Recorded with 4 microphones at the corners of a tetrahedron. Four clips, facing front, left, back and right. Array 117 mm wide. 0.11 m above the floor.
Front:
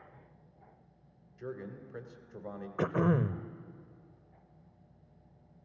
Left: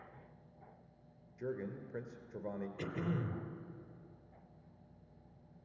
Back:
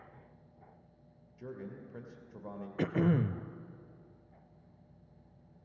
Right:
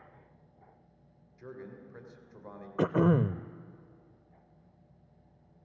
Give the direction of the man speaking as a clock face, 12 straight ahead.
9 o'clock.